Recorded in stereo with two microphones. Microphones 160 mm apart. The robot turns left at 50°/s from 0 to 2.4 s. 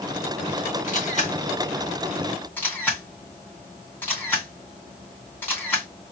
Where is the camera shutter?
55° left (ahead or behind), 2.5 m; by 5.9 s 10° left (ahead or behind), 2.5 m.